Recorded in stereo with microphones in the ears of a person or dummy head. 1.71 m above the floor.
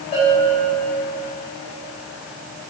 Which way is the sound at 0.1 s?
35° left (ahead or behind).